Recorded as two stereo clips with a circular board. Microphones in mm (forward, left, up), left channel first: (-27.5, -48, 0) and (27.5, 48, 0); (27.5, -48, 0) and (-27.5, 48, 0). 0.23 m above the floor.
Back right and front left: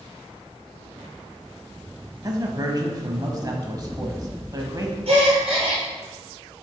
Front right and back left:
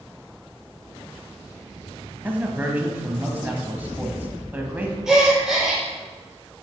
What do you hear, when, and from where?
2.2 s a man speaking: 60° left, 1.1 m
5.1 s a gasp: 35° left, 3 m